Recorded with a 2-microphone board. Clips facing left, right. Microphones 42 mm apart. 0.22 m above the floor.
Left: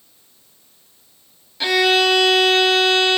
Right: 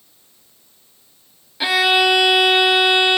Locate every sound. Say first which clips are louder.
1.6 s a violin: even; 15° right (ahead or behind), 1.2 m